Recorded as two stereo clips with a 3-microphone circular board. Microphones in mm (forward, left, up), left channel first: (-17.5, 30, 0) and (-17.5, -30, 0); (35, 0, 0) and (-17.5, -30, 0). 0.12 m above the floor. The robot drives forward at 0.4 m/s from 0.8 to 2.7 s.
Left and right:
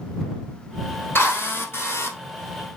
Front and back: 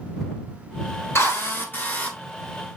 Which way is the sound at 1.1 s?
55° left.